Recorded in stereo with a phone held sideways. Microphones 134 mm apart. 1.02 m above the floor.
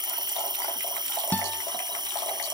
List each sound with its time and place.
0.0 s an insect: 30° right (ahead or behind)
1.3 s a guitar: 10° left (ahead or behind)